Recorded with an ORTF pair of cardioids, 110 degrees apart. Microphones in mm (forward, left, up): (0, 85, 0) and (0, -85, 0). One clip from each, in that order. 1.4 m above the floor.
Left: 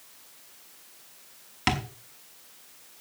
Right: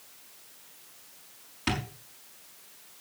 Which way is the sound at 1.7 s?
55° left.